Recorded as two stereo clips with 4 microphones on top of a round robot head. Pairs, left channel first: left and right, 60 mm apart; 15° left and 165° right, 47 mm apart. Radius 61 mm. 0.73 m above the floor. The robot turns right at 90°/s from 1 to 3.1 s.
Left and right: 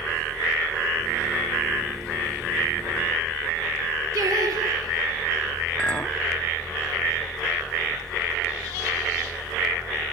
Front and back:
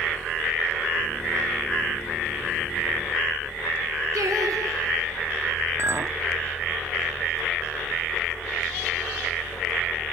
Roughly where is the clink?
Behind.